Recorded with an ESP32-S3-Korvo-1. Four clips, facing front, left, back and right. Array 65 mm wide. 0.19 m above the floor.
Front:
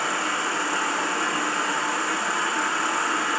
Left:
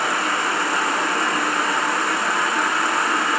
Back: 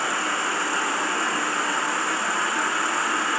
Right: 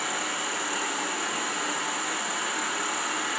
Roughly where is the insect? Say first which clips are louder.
Left 10 dB, back 1 dB; left.